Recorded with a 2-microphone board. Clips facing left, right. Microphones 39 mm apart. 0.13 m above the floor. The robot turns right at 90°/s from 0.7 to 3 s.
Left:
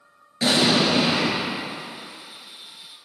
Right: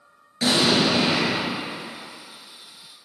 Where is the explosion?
160° left, 2.5 m; by 1.4 s 140° right, 2.5 m.